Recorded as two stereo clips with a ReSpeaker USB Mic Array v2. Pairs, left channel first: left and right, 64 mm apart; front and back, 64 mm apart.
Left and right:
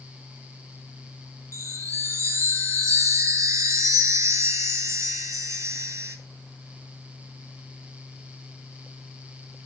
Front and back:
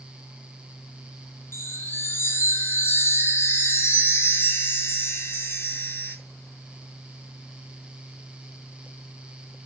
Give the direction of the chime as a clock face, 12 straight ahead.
2 o'clock.